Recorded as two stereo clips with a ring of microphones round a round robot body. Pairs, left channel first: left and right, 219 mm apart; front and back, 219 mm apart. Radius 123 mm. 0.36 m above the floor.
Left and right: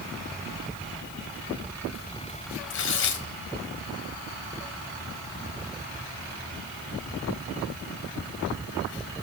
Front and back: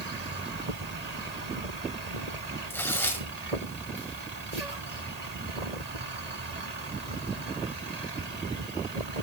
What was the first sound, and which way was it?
Tearing paper, 80° left.